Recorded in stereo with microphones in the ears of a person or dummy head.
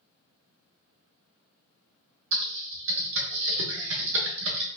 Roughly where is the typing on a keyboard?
Right.